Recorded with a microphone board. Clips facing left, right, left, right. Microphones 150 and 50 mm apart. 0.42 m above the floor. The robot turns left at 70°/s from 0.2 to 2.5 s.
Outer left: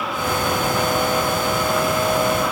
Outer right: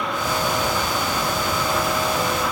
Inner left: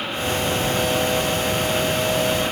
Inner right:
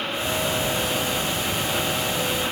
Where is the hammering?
I don't hear hammering.